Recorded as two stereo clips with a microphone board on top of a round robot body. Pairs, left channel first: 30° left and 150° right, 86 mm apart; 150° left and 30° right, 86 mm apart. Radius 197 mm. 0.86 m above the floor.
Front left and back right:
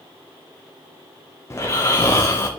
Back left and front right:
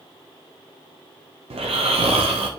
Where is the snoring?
30° right, 1.3 m.